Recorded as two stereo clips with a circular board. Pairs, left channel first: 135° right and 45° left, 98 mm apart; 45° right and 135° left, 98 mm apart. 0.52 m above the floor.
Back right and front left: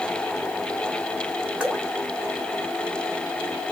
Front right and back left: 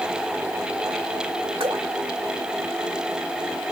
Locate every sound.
1.6 s dripping: 125° left, 2 m